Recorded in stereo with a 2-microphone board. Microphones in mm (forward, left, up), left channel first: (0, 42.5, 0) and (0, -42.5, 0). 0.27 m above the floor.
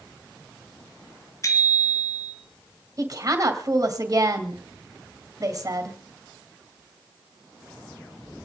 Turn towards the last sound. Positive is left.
turn(degrees=-35)  # may be behind; listen again after turning